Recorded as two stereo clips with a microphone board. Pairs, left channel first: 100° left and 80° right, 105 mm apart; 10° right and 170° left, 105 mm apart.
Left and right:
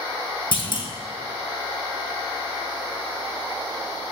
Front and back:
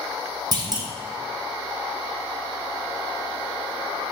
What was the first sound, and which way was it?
A clunk, 130° left.